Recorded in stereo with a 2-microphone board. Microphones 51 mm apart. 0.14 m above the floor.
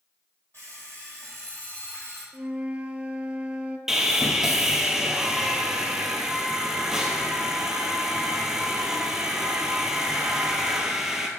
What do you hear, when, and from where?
0.5 s an alarm clock: 45° left (ahead or behind), 2.5 m
2.3 s a flute: 25° right (ahead or behind), 0.5 m
3.9 s sawing: 10° right (ahead or behind), 0.8 m